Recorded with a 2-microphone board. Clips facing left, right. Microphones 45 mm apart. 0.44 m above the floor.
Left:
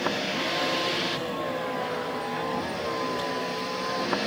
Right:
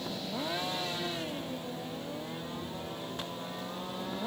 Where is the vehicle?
65° left (ahead or behind); by 4.3 s 85° left.